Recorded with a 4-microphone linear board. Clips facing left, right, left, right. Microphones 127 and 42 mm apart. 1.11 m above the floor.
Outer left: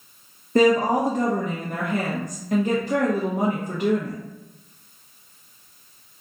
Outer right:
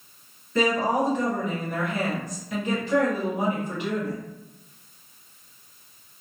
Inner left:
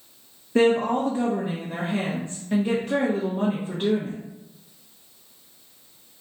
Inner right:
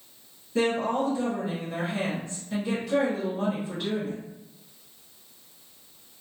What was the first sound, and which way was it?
A woman speaking, 45° left (ahead or behind).